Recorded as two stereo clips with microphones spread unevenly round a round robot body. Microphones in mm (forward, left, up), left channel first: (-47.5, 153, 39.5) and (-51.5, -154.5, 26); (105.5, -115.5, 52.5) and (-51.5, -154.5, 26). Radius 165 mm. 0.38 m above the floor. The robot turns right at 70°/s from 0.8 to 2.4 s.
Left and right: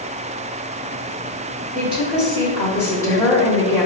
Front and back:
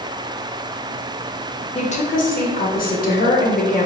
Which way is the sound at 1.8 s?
35° right.